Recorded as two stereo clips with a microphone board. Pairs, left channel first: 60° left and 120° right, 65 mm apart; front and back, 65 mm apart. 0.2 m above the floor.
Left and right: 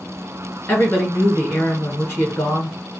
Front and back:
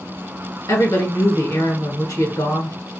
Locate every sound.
0.7 s a woman speaking: 5° left, 2 m